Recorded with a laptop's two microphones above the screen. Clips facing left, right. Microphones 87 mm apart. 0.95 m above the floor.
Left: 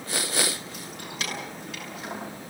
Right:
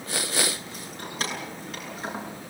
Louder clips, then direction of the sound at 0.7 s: Right 2 dB; 40° right (ahead or behind).